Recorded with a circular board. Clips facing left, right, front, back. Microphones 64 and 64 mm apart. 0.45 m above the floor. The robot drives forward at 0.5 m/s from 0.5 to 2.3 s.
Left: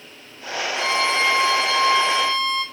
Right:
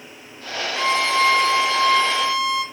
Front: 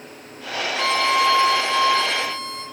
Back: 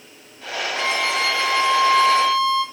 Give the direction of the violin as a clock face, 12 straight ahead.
5 o'clock.